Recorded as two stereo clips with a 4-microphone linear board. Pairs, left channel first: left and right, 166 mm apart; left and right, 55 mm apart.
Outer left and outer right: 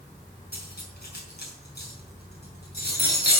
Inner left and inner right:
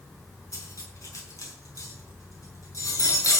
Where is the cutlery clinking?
75° left (ahead or behind), 5.5 m.